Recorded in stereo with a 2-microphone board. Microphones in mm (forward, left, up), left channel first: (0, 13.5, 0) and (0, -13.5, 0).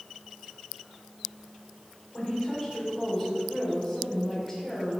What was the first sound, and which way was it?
A woman speaking, 15° left (ahead or behind).